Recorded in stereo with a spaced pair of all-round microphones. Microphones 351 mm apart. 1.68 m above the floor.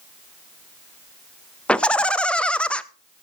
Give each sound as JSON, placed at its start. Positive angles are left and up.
{"t": 1.7, "sound": "laughter", "side_deg": 5, "distance_m": 0.5}